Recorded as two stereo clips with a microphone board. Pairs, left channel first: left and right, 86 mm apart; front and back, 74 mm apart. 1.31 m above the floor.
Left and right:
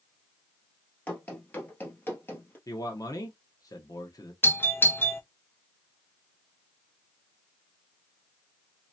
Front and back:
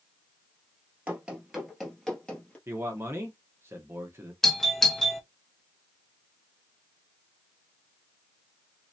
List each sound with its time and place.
1.1 s running footsteps: 135° left, 1.4 m; by 2.6 s 55° left, 1.5 m
2.7 s a man speaking: 130° left, 1.0 m
4.4 s a doorbell: 80° left, 0.8 m